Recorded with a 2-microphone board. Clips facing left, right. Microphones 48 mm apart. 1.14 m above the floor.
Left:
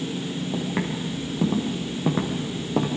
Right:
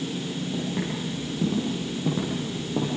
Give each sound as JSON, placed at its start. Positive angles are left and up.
{"t": 0.5, "sound": "footsteps", "side_deg": 75, "distance_m": 6.5}